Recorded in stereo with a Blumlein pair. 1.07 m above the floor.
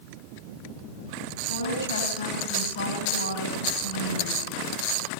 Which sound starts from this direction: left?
A woman speaking, at 1.5 s.